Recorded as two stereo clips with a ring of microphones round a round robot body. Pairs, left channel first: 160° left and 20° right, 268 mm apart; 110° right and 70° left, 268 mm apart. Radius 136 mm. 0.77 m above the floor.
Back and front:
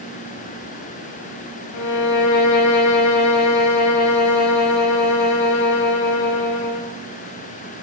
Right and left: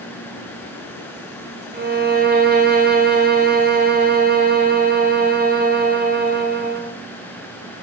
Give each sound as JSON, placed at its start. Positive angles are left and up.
{"t": 1.7, "sound": "a violin", "azimuth_deg": 125, "distance_m": 1.0}